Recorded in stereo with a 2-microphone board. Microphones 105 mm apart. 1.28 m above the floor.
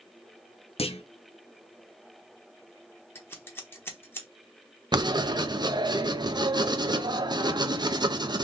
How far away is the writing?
About 0.6 m.